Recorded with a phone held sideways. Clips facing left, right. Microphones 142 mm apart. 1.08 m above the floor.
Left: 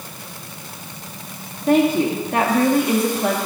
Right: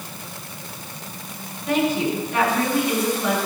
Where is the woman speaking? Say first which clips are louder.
Left 5 dB; 50° left (ahead or behind), 2.5 m.